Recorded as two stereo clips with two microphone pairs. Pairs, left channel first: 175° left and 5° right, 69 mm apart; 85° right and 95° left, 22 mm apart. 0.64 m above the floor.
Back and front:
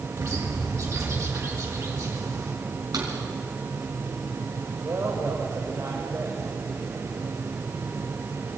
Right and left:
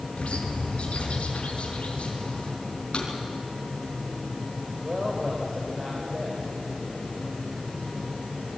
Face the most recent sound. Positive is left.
turn(degrees=30)